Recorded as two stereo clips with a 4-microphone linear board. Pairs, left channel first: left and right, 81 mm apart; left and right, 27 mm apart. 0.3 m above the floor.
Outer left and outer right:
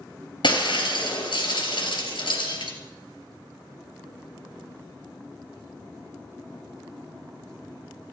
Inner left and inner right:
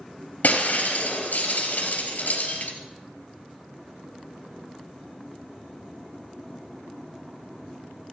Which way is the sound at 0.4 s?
65° left (ahead or behind).